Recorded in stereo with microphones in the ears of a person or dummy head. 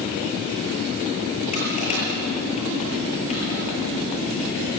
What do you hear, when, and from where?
1.5 s crushing: 35° left (ahead or behind), 8 m